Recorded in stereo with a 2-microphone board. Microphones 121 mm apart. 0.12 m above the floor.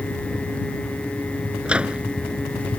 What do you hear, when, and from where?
1.6 s a microwave: 10° right (ahead or behind)